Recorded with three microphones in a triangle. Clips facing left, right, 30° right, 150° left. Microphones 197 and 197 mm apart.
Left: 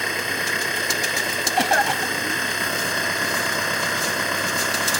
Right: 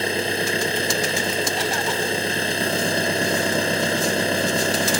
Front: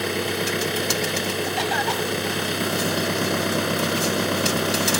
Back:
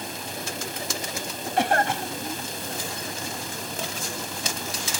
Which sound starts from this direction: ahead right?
An engine running, at 0.0 s.